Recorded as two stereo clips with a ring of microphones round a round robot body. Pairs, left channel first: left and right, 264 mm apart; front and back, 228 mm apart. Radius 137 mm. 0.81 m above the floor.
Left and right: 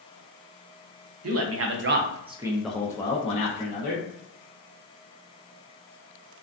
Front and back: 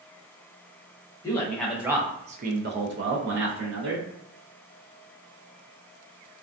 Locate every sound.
1.2 s a man speaking: 75° right, 0.7 m; by 4.0 s 145° left, 1.0 m